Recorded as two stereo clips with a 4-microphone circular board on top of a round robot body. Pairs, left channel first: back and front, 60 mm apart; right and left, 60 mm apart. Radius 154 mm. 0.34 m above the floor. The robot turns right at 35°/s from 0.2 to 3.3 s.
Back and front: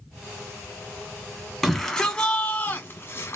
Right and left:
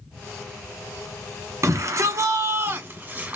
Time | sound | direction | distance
1.6 | a shout | 95° left | 1.2 m